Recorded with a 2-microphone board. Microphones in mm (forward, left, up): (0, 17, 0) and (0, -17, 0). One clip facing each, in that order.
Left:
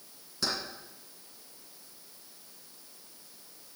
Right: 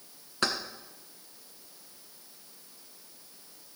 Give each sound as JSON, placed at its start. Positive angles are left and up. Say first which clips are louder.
{"t": 0.4, "sound": "keys jangling", "louder": "right 4 dB", "side_deg": -55, "distance_m": 1.6}